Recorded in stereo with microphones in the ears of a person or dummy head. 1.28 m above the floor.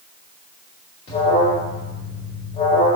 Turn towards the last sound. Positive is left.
turn(degrees=35)  # may be behind; listen again after turning